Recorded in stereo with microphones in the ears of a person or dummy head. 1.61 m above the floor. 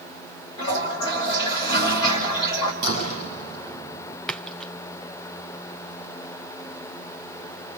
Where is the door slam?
50° right (ahead or behind), 9 m.